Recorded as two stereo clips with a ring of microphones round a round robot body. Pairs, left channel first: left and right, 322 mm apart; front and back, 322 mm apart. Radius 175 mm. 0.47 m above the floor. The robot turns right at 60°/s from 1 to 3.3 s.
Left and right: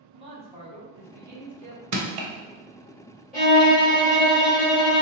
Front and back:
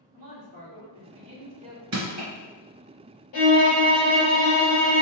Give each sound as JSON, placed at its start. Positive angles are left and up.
{"t": 0.1, "sound": "a man speaking", "azimuth_deg": -155, "distance_m": 1.3}
{"t": 1.9, "sound": "crushing", "azimuth_deg": -130, "distance_m": 0.9}
{"t": 3.3, "sound": "a violin", "azimuth_deg": 0, "distance_m": 1.8}